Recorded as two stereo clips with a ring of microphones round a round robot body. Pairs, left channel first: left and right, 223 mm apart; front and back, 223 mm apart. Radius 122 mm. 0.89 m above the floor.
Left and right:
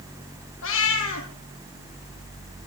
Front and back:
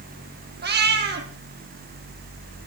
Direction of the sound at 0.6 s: 135° left.